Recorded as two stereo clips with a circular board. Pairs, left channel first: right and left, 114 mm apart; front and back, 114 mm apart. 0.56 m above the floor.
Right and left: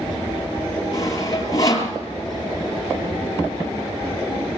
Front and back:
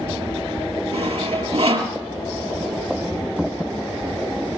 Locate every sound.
0.9 s sawing: 150° right, 4.5 m